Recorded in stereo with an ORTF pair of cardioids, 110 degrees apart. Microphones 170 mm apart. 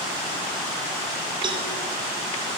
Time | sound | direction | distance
1.4 | a cowbell | 30° right | 4 m